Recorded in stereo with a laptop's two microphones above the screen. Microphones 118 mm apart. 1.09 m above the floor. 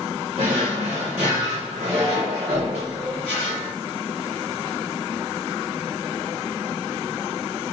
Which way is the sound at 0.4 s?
75° right (ahead or behind).